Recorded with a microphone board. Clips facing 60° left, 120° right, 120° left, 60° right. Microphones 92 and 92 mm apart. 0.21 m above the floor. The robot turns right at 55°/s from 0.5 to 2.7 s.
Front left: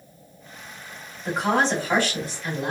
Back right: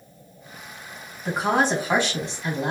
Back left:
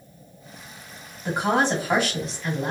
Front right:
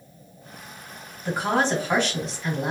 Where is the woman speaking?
150° left, 1.3 m; by 2.7 s 130° right, 1.3 m.